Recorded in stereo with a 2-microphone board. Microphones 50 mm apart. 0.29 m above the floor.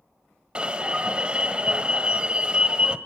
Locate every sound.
0.6 s an alarm: 20° right (ahead or behind), 1.3 m